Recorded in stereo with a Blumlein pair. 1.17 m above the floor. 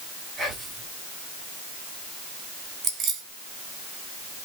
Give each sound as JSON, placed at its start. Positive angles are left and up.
{"t": 0.4, "sound": "whispering", "azimuth_deg": -15, "distance_m": 4.5}
{"t": 2.8, "sound": "keys jangling", "azimuth_deg": -30, "distance_m": 3.0}